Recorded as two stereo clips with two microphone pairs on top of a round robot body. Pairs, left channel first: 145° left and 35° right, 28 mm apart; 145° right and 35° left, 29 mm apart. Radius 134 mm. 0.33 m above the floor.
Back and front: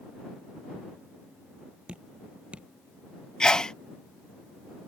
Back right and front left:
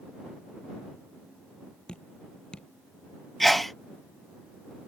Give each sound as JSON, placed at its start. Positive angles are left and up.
{"t": 1.9, "sound": "dripping", "azimuth_deg": -80}
{"t": 3.4, "sound": "a sneeze", "azimuth_deg": 160}